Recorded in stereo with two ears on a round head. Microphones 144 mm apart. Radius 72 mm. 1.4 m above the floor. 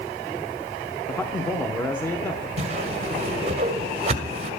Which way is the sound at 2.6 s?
40° right (ahead or behind).